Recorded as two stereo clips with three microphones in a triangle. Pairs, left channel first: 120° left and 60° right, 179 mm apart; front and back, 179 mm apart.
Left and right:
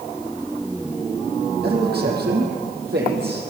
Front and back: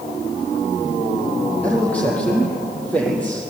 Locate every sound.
1.6 s a man speaking: 85° right, 7.5 m